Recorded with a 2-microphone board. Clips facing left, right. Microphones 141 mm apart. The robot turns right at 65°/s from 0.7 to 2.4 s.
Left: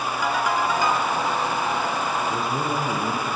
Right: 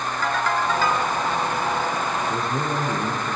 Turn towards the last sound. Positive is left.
turn(degrees=0)  # may be behind; listen again after turning